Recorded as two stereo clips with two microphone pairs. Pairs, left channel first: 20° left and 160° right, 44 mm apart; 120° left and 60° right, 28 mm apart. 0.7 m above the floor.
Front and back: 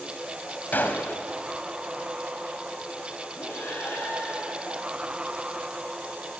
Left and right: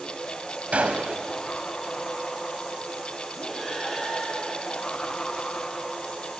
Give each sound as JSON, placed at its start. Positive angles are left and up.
{"t": 0.7, "sound": "a gunshot", "azimuth_deg": -25, "distance_m": 2.5}
{"t": 3.4, "sound": "breathing", "azimuth_deg": 40, "distance_m": 8.5}